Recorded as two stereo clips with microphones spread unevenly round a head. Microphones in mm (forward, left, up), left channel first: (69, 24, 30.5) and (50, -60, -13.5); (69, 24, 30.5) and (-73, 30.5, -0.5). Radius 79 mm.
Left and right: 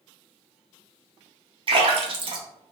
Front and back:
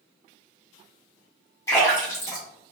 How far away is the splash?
About 1.1 m.